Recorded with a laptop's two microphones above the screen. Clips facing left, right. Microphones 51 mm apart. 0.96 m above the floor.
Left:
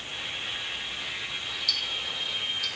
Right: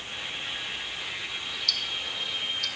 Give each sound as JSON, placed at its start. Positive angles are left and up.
{"t": 1.7, "sound": "ticking", "side_deg": 5, "distance_m": 0.7}